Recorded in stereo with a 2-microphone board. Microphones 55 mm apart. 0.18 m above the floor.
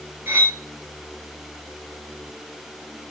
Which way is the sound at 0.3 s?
35° right (ahead or behind).